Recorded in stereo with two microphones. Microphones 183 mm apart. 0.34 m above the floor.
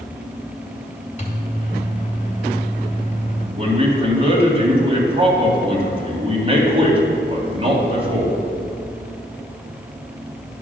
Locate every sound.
1.2 s a microwave: 40° left (ahead or behind), 1.3 m
3.6 s a man speaking: 35° right (ahead or behind), 1.9 m